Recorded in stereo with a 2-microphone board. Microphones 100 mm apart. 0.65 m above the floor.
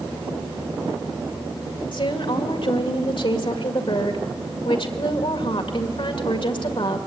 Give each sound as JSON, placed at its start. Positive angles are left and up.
{"t": 1.9, "sound": "a woman speaking", "side_deg": 65, "distance_m": 2.0}